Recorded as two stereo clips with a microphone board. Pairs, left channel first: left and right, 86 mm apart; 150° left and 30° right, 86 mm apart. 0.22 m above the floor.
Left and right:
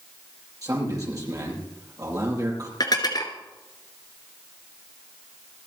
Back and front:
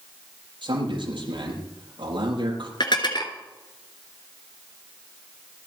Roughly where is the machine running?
I don't hear a machine running.